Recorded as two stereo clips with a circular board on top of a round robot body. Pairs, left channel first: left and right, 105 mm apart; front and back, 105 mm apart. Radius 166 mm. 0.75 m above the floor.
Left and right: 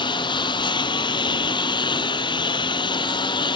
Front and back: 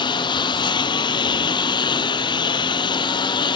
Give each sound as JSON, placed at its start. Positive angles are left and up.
{"t": 0.0, "sound": "a lawn mower", "azimuth_deg": 45}